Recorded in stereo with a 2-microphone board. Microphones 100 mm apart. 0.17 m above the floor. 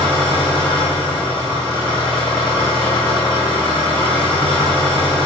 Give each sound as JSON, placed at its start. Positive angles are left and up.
{"t": 0.0, "sound": "an engine running", "side_deg": 10, "distance_m": 2.5}